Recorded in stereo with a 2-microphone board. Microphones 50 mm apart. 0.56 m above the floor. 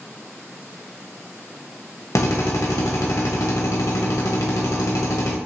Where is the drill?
85° left, 0.9 m.